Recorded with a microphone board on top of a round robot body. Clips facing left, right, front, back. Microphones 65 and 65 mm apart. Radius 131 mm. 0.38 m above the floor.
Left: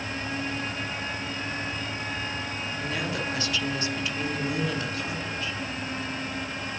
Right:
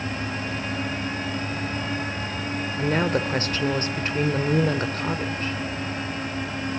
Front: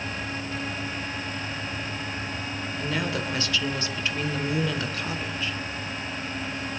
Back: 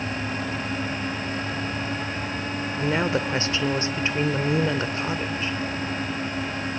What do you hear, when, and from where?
2.8 s a woman speaking: 125° right, 2 m